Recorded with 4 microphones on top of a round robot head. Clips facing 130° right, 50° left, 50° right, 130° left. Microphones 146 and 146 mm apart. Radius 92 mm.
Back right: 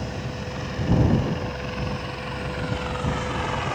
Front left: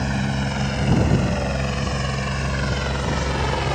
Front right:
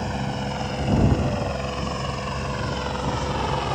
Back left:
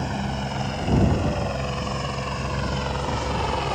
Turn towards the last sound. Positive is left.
turn(degrees=45)